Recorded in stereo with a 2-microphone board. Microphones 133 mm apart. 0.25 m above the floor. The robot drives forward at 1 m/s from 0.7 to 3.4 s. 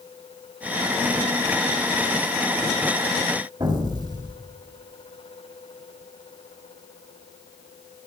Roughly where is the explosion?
Right.